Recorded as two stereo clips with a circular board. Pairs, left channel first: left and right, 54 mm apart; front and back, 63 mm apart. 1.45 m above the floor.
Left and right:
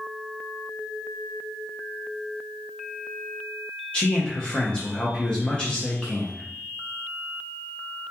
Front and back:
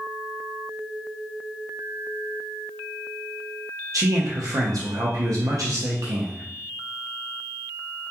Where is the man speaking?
160° left, 0.5 m.